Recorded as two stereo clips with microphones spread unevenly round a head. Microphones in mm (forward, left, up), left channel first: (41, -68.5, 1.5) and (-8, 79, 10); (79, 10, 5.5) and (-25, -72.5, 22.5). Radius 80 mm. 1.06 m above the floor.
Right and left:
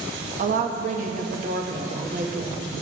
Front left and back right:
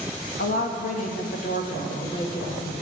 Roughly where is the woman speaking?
Ahead left.